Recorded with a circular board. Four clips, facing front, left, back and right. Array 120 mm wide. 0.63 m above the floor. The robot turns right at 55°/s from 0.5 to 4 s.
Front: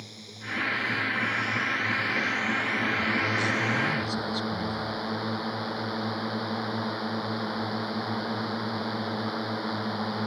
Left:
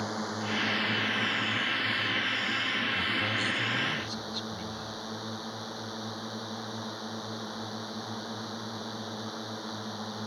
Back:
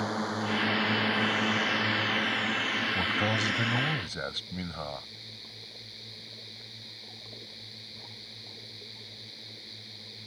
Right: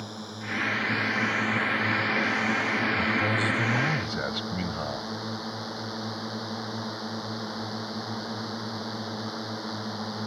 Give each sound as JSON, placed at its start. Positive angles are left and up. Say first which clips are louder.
{"t": 0.0, "sound": "a drone", "louder": "left 5 dB, back 13 dB", "azimuth_deg": 160}
{"t": 3.0, "sound": "a man speaking", "louder": "right 6 dB, front 2 dB", "azimuth_deg": -165}